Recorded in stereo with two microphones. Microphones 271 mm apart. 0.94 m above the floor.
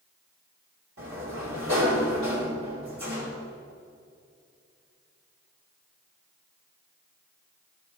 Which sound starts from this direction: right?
A sliding door, at 1.0 s.